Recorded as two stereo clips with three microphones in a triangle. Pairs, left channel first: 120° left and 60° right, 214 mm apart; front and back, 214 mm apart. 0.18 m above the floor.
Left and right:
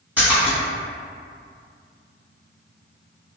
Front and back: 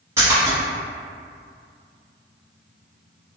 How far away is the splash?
About 1.4 m.